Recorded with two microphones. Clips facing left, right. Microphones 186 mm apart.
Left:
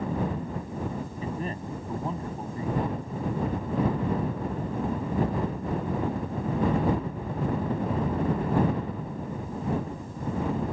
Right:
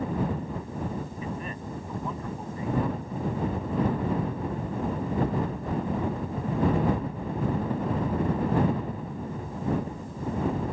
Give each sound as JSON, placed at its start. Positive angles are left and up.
{"t": 1.2, "sound": "a man speaking", "side_deg": 35}